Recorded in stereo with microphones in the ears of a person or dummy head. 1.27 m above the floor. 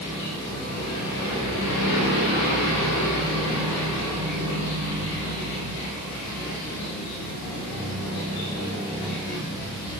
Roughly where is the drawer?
I don't hear a drawer.